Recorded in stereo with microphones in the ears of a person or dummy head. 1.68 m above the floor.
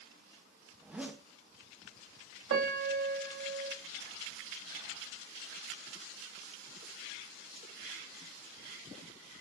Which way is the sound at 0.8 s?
10° right (ahead or behind).